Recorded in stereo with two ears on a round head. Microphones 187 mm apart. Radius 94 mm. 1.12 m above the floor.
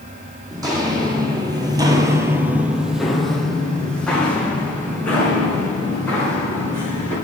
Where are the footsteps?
20° right (ahead or behind), 2.5 m; by 7.2 s 10° left (ahead or behind), 6.5 m.